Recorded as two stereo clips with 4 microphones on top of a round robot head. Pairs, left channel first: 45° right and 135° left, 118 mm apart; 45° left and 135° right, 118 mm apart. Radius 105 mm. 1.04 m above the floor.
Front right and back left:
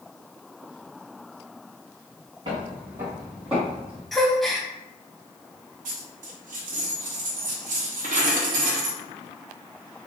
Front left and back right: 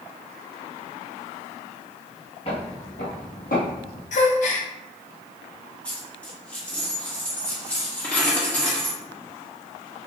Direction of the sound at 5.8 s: 125° left.